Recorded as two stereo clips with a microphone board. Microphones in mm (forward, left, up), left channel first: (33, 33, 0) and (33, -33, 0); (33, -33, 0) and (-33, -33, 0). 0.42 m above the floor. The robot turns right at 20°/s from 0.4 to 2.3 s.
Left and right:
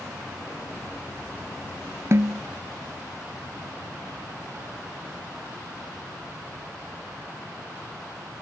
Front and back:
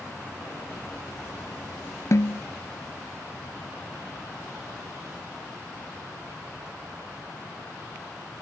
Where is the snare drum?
45° right; by 2.4 s 40° right.